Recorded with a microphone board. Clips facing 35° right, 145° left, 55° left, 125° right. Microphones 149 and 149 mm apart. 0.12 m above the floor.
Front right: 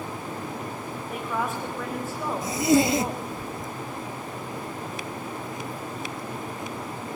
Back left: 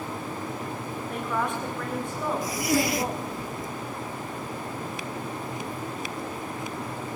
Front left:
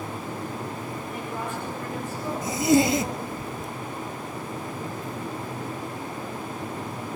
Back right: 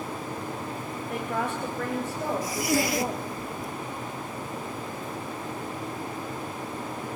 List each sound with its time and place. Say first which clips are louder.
1.1 s a woman speaking: even, back right 5 dB; 120° right, 7 m
2.4 s a zipper: front right 7 dB, front left 9 dB; 10° left, 0.6 m